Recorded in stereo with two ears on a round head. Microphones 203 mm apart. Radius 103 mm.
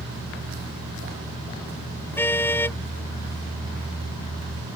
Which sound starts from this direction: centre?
A car horn, at 2.2 s.